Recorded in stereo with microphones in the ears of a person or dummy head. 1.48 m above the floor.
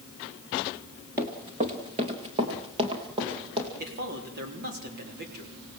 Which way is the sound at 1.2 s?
20° right (ahead or behind).